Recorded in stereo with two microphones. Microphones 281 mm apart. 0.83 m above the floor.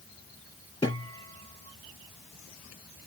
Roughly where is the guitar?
Centre.